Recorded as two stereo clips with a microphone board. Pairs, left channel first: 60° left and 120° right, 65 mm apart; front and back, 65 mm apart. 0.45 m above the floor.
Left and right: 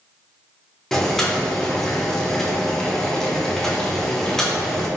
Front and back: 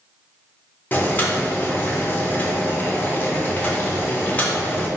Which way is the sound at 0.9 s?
15° right.